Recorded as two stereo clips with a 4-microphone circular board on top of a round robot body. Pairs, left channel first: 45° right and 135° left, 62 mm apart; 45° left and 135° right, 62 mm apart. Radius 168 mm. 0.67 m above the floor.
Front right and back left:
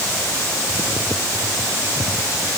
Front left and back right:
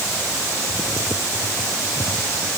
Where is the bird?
I don't hear a bird.